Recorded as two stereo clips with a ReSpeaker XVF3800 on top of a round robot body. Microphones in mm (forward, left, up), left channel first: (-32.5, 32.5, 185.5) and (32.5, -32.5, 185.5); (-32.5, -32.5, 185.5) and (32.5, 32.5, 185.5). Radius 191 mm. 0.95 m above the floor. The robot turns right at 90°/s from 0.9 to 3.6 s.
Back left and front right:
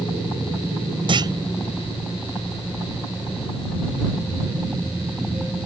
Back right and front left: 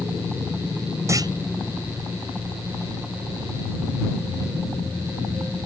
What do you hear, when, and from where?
1.1 s a clunk: 15° right; by 1.3 s 5° left